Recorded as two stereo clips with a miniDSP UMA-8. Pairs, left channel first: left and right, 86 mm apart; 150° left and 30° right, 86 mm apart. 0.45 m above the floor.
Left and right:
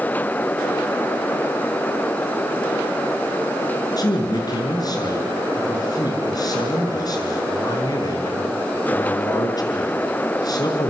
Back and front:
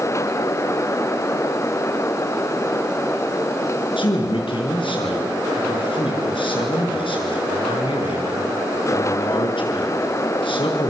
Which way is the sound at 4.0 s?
135° left.